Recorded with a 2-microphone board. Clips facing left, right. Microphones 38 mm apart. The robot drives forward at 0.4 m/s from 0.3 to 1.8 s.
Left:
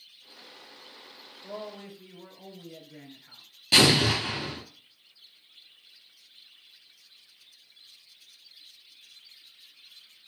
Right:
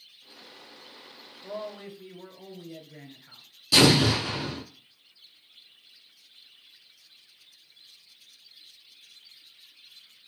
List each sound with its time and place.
1.4 s a man speaking: 20° right (ahead or behind), 1.1 m
3.7 s an explosion: 45° left (ahead or behind), 1.2 m